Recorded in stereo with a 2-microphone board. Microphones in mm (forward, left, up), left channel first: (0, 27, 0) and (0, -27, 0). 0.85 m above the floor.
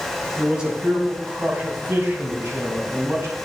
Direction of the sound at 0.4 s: 15° right (ahead or behind).